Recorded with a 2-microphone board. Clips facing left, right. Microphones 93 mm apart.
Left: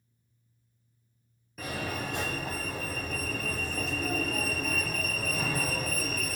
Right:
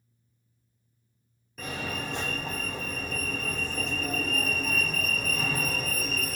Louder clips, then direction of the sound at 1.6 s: Even; 5° left (ahead or behind).